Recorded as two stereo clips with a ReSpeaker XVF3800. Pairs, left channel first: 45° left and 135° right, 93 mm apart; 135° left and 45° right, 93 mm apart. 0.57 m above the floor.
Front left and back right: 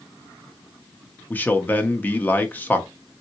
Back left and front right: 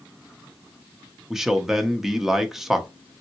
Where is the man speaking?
35° left, 0.6 m.